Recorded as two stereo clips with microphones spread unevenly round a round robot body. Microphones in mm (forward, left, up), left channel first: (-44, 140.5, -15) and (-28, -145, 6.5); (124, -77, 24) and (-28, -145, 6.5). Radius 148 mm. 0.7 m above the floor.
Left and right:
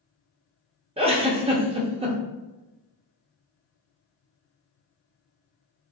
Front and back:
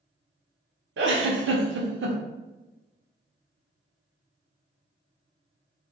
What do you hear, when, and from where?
1.0 s a giggle: 160° right, 0.8 m